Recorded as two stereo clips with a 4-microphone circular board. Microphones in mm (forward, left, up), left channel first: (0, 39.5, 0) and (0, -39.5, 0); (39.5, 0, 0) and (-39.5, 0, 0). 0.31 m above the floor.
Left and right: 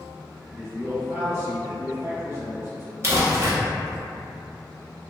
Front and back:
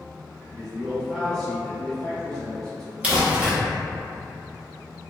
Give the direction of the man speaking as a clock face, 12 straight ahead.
2 o'clock.